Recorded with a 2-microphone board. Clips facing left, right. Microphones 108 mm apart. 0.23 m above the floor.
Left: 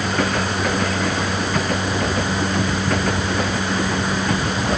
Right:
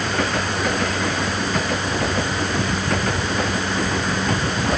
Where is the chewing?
I don't hear chewing.